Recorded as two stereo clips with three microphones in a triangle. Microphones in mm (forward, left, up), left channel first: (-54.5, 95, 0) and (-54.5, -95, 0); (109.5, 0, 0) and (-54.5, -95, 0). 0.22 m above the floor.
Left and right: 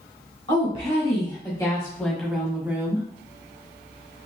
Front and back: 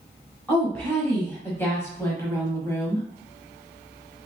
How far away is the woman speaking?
About 1.3 m.